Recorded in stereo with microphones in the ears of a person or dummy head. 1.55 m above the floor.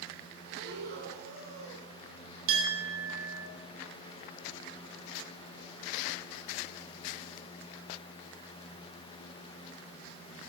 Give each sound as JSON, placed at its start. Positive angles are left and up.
{"t": 0.5, "sound": "breathing", "side_deg": -55, "distance_m": 2.5}
{"t": 2.5, "sound": "a clink", "side_deg": -80, "distance_m": 3.0}